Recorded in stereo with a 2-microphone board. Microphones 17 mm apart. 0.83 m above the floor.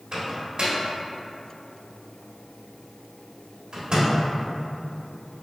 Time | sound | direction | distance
0.1 | a microwave | 50° right (ahead or behind) | 1.0 m